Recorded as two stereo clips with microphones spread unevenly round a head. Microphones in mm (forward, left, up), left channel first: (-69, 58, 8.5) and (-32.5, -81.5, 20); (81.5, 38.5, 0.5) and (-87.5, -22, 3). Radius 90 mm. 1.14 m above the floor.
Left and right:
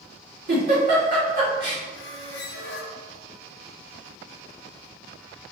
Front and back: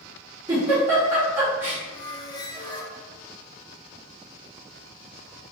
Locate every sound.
0.5 s a giggle: 80° right, 1.8 m
1.9 s a squeak: 90° left, 0.6 m